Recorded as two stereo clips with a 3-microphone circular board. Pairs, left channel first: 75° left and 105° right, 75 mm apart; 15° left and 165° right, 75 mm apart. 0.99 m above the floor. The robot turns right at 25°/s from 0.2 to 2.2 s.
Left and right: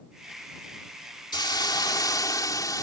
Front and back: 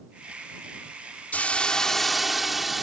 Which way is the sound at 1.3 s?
85° left.